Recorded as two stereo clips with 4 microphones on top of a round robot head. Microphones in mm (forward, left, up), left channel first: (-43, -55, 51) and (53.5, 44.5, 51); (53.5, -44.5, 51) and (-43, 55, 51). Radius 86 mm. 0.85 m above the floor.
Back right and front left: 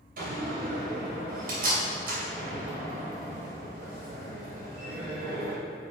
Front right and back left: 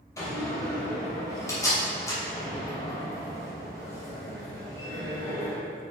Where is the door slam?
25° left, 2.5 m.